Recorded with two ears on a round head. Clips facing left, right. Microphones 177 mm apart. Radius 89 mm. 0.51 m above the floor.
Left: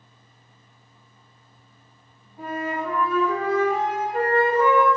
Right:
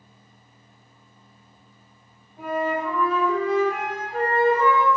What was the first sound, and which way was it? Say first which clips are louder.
A flute: right 3 dB; 60° right (ahead or behind).